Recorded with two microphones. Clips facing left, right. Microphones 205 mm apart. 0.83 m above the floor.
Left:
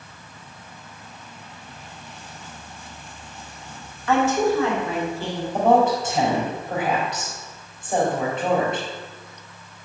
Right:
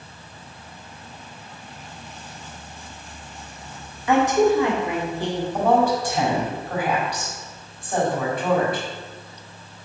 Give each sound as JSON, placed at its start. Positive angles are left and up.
{"t": 4.1, "sound": "a woman speaking", "side_deg": -15, "distance_m": 1.9}
{"t": 5.5, "sound": "a woman speaking", "side_deg": 25, "distance_m": 3.5}